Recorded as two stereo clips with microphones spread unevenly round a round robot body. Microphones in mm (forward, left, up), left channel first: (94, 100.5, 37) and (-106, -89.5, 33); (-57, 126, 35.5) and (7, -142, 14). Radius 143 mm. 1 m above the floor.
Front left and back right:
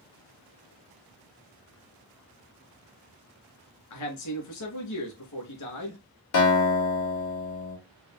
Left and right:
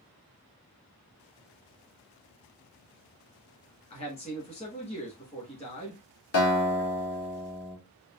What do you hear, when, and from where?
3.9 s a man speaking: 35° left, 1.9 m
6.3 s a guitar: 60° left, 2 m